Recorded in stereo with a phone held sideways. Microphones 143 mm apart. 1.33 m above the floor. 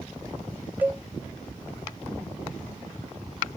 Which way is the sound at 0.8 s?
10° right (ahead or behind).